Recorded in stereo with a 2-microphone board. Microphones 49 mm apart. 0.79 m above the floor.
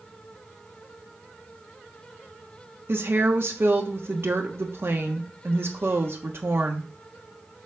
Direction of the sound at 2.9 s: 55° right (ahead or behind).